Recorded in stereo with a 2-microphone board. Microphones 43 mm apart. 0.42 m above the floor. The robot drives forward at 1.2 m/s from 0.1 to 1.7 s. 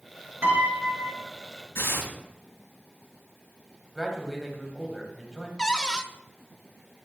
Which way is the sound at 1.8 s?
80° left.